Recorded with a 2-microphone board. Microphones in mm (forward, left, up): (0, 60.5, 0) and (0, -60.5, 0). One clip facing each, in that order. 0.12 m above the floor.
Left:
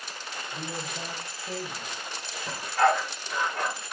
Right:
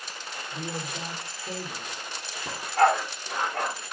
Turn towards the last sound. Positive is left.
turn(degrees=-70)  # may be behind; listen again after turning